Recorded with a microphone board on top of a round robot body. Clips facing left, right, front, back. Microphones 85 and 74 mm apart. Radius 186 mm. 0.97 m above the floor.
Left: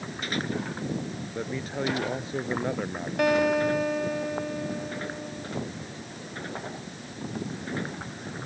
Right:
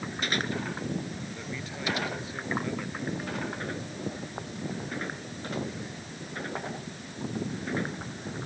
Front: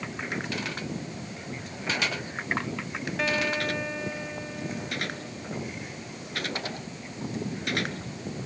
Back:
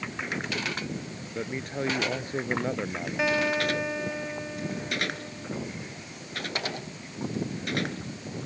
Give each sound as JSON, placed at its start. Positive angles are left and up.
{"t": 1.4, "sound": "a man speaking", "azimuth_deg": 140}
{"t": 3.2, "sound": "a guitar", "azimuth_deg": 100}